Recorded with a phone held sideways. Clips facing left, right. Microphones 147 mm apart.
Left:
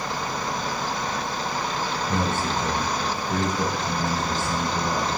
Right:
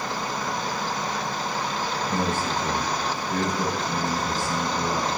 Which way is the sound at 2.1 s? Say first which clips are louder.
Left 1 dB; 20° left (ahead or behind).